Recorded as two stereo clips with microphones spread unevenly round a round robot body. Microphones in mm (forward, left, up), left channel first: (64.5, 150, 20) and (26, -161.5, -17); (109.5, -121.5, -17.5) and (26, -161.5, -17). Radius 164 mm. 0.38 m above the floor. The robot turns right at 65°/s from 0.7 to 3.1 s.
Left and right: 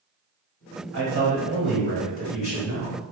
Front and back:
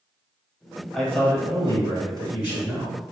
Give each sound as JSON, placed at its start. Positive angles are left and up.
{"t": 0.9, "sound": "a man speaking", "azimuth_deg": -60, "distance_m": 1.8}